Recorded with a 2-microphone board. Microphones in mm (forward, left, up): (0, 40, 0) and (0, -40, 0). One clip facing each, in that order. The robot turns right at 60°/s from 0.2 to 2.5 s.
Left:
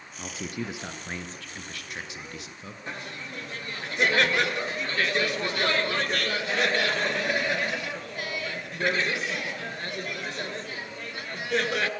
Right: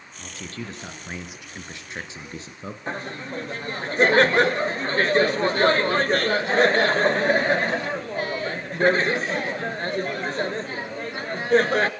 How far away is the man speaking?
About 1.8 m.